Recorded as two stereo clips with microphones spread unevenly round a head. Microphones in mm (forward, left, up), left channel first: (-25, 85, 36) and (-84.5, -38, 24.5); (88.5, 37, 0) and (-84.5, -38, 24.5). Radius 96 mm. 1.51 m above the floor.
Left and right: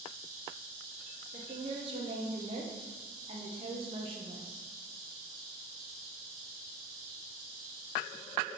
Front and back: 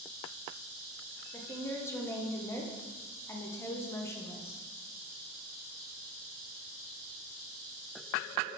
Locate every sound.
1.3 s a woman speaking: 55° right, 0.7 m